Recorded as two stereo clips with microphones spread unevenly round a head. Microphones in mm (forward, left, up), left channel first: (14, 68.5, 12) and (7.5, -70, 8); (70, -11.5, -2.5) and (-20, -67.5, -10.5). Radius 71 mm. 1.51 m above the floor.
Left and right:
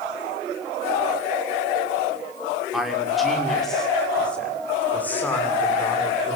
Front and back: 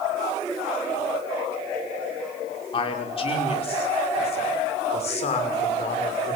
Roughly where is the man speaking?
Ahead.